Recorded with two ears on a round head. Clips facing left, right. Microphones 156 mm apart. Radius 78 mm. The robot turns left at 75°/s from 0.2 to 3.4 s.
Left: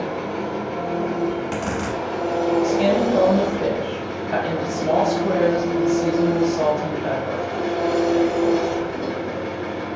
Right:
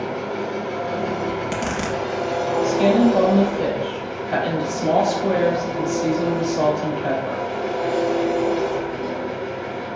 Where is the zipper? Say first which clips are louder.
Even; straight ahead, 0.9 m; by 2.0 s 55° right, 0.9 m.